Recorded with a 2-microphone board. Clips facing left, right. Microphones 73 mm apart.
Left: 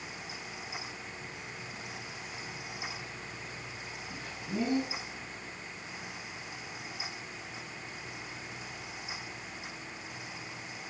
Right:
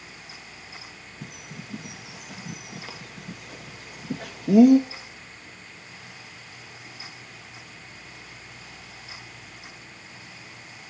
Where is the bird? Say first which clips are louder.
Right 2 dB; 80° right, 1.3 m.